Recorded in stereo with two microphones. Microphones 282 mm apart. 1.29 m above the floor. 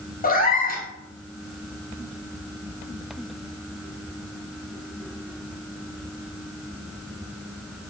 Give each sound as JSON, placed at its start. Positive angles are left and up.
{"t": 0.2, "sound": "a cat meowing", "side_deg": 30, "distance_m": 0.6}